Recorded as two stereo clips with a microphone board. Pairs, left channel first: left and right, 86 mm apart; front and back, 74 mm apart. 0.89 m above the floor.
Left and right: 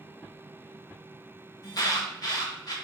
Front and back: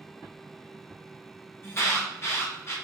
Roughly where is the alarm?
Ahead left.